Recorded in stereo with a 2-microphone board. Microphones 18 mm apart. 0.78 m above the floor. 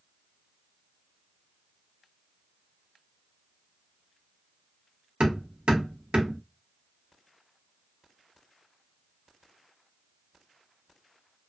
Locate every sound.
5.2 s hammering: 85° right, 1.0 m